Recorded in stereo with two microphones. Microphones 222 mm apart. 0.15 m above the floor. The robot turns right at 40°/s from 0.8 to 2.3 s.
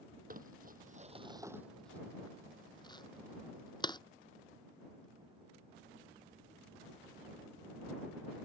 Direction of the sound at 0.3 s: 40° right (ahead or behind).